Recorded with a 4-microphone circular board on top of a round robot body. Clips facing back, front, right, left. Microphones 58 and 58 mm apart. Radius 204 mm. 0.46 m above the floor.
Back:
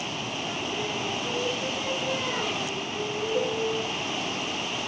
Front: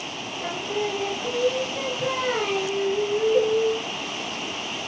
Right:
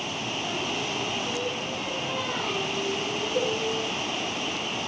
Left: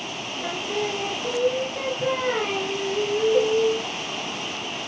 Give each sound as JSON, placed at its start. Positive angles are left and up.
{"t": 0.4, "sound": "singing", "azimuth_deg": 45, "distance_m": 4.0}
{"t": 3.3, "sound": "a cowbell", "azimuth_deg": 50, "distance_m": 1.8}